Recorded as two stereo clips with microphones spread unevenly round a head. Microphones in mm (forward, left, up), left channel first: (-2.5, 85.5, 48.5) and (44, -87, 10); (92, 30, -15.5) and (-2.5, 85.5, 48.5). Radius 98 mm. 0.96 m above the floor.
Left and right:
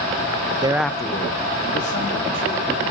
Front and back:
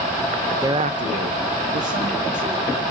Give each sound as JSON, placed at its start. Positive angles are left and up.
{"t": 0.6, "sound": "a man speaking", "azimuth_deg": -115, "distance_m": 0.8}